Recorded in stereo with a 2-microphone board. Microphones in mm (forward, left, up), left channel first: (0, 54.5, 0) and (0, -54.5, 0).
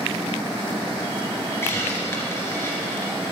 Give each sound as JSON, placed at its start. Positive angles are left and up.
{"t": 1.6, "sound": "a hiss", "side_deg": 25, "distance_m": 2.0}